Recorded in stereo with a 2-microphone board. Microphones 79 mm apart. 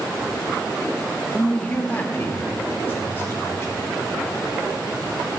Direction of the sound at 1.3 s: 10° left (ahead or behind).